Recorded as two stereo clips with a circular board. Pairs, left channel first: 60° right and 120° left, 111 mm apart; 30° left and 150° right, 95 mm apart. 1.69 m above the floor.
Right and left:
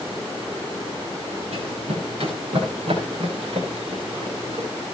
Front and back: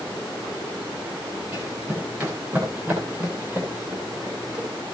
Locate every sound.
1.5 s running footsteps: 145° left, 9.5 m; by 4.7 s 150° left, 11 m